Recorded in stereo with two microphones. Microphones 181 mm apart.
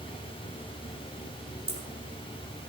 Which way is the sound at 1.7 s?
65° right (ahead or behind).